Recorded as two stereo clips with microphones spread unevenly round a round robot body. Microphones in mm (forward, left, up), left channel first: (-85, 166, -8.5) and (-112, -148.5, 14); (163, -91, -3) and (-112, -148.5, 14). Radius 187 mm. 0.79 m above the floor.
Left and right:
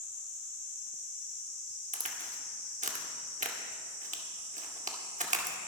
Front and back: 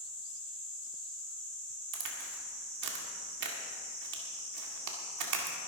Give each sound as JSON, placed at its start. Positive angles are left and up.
{"t": 1.9, "sound": "a crack", "azimuth_deg": -165, "distance_m": 2.0}